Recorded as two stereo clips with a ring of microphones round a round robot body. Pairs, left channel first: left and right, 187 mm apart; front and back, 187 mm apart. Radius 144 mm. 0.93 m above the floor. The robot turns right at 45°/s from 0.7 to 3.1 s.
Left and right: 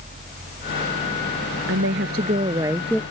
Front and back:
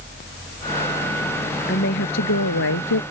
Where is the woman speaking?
55° right; by 3.0 s 5° left.